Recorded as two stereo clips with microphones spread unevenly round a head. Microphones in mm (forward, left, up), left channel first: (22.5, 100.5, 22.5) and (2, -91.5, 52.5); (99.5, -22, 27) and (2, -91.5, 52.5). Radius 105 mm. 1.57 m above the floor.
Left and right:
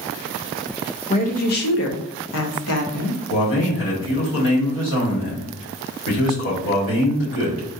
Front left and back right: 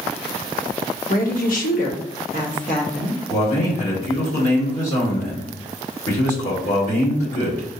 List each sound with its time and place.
1.1 s a woman speaking: 20° left, 0.9 m; by 3.2 s 100° left, 1.3 m
3.3 s a man speaking: 65° left, 1.9 m